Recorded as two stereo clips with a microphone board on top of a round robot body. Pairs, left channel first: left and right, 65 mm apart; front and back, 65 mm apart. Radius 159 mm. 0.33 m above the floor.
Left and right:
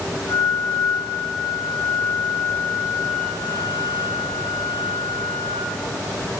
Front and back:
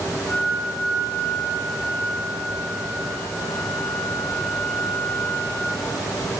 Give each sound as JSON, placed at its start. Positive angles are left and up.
{"t": 0.3, "sound": "a flute", "azimuth_deg": 45, "distance_m": 4.0}